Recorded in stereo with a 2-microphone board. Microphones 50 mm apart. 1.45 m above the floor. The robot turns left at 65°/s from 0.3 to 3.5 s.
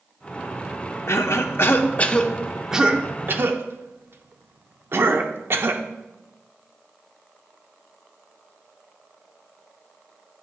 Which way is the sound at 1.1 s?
60° left (ahead or behind).